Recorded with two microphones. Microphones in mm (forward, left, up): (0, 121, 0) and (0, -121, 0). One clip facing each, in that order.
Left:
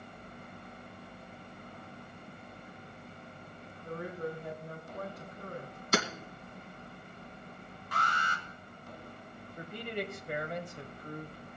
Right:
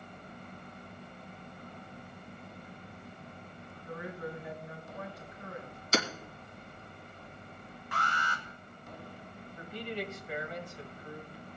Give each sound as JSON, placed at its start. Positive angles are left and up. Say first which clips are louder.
{"t": 3.8, "sound": "a woman speaking", "louder": "left 3 dB", "side_deg": 50, "distance_m": 3.5}
{"t": 5.9, "sound": "hammering", "louder": "even", "side_deg": 60, "distance_m": 1.8}
{"t": 7.9, "sound": "an alarm", "louder": "even", "side_deg": 40, "distance_m": 3.0}
{"t": 9.6, "sound": "a man speaking", "louder": "left 1 dB", "side_deg": 50, "distance_m": 1.5}